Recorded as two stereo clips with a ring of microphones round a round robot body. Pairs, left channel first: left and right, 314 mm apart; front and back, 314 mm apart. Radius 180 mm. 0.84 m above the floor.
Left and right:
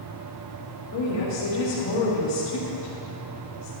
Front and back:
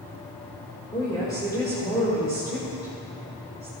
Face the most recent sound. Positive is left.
turn(degrees=80)